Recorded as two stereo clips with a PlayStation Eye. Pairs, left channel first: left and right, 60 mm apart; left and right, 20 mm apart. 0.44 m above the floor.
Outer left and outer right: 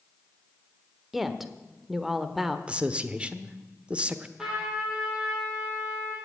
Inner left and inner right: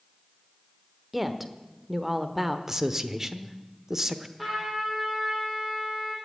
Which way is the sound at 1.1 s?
5° right (ahead or behind).